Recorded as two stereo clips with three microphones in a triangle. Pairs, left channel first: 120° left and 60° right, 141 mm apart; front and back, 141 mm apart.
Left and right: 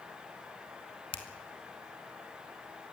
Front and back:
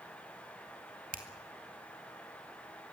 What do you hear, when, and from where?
1.1 s a finger snap: 170° left, 2 m